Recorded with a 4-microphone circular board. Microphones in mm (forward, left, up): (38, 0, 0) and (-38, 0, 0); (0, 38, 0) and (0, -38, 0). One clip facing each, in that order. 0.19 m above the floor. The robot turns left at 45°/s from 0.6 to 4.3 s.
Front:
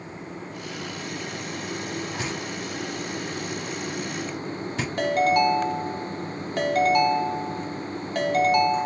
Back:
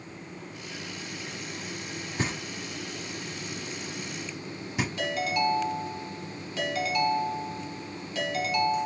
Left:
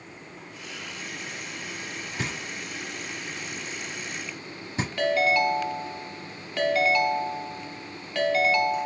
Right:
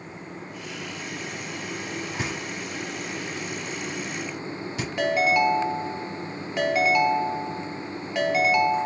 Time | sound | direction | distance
2.2 | knocking | 155° right | 1.1 m
5.0 | a ringtone | 15° right | 0.8 m